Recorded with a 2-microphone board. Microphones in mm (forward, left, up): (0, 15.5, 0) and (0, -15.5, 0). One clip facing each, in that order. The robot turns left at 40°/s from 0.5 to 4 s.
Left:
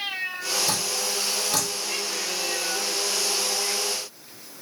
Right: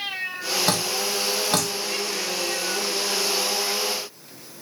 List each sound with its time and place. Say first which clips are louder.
0.7 s dripping: right 3 dB; 80° right, 0.9 m; by 1.7 s 40° right (ahead or behind), 0.9 m